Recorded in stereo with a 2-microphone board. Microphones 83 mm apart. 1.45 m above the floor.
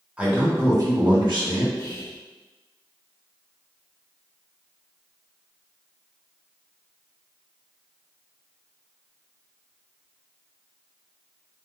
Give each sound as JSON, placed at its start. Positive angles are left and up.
{"t": 0.2, "sound": "a man speaking", "side_deg": -15, "distance_m": 1.2}
{"t": 1.8, "sound": "whispering", "side_deg": 30, "distance_m": 1.4}